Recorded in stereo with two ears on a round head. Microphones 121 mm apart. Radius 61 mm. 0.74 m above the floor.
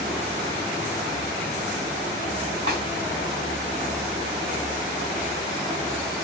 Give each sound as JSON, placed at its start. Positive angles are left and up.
{"t": 2.7, "sound": "a snare drum", "side_deg": -40, "distance_m": 4.5}